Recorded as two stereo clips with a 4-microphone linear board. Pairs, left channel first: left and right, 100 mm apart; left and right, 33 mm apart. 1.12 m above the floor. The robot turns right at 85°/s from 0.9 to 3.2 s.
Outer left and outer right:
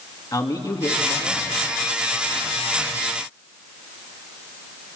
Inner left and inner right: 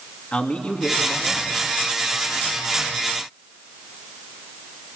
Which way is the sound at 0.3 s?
40° left.